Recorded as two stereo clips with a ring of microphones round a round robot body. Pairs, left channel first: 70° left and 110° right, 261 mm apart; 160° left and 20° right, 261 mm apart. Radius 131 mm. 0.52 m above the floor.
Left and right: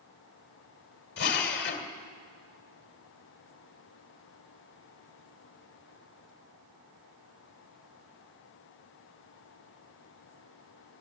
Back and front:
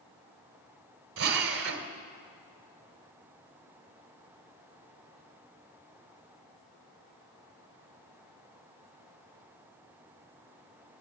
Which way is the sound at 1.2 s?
15° left.